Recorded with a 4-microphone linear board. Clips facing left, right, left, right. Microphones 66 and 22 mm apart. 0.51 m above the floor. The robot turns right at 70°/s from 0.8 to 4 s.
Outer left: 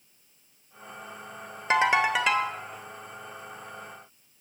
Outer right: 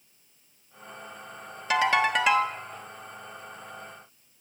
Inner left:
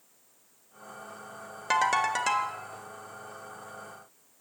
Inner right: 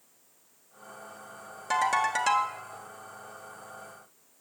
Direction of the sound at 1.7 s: 145° left.